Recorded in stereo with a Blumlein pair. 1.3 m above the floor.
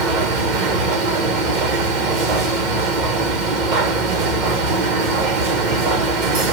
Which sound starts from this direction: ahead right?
A machine running, at 0.0 s.